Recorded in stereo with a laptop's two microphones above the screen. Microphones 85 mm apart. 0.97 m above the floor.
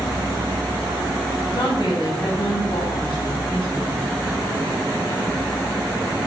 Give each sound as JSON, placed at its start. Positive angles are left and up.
{"t": 1.5, "sound": "a woman speaking", "side_deg": 65, "distance_m": 1.2}